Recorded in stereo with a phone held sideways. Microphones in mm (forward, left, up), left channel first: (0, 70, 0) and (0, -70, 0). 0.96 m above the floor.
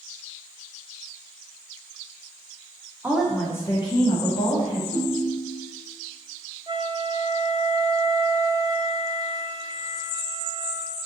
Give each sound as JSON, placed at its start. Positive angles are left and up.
{"t": 3.0, "sound": "a woman speaking", "side_deg": -10, "distance_m": 0.8}
{"t": 4.9, "sound": "a ringtone", "side_deg": 60, "distance_m": 1.5}
{"t": 6.7, "sound": "a flute", "side_deg": -30, "distance_m": 0.6}